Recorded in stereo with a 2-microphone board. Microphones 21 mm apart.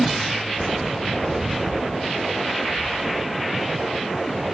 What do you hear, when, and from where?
0.6 s footsteps: centre (ahead or behind), 0.6 m; by 4.5 s 30° right (ahead or behind), 4.5 m